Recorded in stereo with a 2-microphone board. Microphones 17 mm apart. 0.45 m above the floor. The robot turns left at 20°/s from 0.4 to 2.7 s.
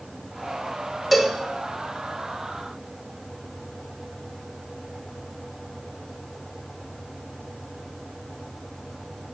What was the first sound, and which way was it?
A cowbell, centre (ahead or behind).